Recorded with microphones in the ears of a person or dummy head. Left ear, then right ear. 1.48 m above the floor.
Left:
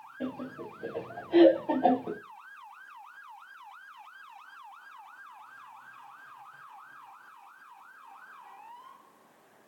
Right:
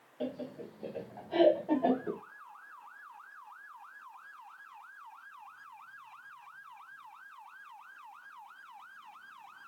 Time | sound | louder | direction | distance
0.2 | laughter | even | 30° right (ahead or behind) | 1.6 m